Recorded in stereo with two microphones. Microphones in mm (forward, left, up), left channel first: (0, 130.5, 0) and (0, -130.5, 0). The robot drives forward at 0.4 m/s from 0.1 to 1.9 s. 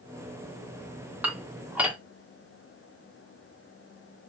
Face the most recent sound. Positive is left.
turn(degrees=-5)  # may be behind; listen again after turning